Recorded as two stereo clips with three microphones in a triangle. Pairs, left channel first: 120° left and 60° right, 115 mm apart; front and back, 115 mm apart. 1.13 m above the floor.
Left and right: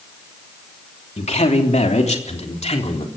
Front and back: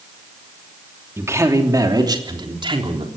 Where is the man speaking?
115° left, 3 m; by 3.1 s 140° left, 4 m.